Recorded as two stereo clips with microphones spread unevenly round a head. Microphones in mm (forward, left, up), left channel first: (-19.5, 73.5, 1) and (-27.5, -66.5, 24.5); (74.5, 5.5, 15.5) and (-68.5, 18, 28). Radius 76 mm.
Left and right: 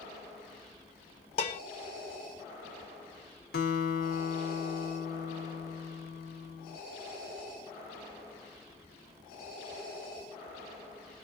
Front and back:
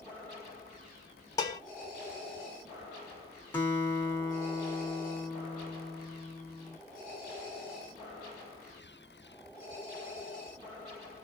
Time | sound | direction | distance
1.4 | dishes clattering | 50° left | 0.8 m
3.5 | a guitar | 70° left | 1.2 m